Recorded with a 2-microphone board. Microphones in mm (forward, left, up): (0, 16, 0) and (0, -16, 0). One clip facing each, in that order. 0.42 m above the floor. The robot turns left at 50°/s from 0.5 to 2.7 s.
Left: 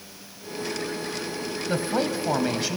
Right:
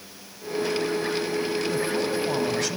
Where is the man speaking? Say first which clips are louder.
Even; 65° left, 2.0 m; by 2.8 s 15° left, 2.0 m.